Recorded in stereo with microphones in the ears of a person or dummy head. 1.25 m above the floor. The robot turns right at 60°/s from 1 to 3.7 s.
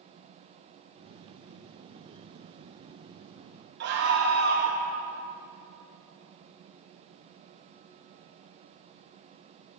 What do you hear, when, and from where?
3.8 s a scream: 60° right (ahead or behind), 1.5 m